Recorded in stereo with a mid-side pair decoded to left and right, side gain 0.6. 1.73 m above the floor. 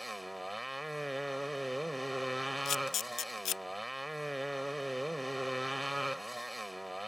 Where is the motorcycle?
5° right.